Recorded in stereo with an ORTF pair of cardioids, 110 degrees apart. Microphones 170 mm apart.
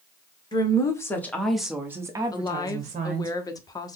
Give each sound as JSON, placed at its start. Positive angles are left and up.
{"t": 0.5, "sound": "a woman speaking", "azimuth_deg": 25, "distance_m": 1.3}
{"t": 2.3, "sound": "a woman speaking", "azimuth_deg": 20, "distance_m": 0.7}